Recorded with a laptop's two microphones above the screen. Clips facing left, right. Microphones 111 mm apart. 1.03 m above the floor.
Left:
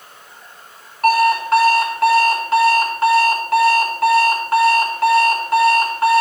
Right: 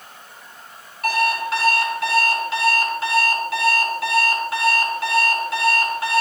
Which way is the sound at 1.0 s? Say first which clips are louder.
Left 7 dB; 50° left (ahead or behind).